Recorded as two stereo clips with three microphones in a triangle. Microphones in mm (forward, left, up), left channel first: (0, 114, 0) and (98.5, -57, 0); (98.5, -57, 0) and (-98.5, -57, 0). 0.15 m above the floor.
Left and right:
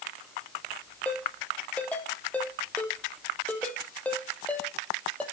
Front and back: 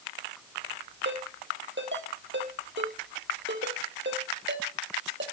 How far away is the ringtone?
About 3 m.